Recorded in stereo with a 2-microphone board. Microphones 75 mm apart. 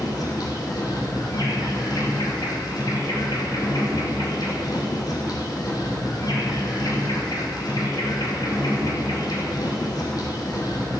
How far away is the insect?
About 3 m.